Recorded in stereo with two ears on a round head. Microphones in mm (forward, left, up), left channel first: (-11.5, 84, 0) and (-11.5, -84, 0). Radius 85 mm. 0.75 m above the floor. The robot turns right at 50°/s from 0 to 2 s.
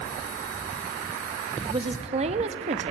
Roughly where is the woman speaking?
Right.